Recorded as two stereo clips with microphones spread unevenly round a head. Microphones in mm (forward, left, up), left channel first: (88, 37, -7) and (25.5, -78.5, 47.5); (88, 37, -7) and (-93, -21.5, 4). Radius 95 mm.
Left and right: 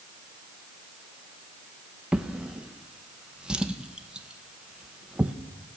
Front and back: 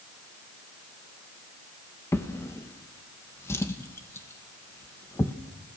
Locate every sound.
2.1 s a drawer: 60° right, 0.9 m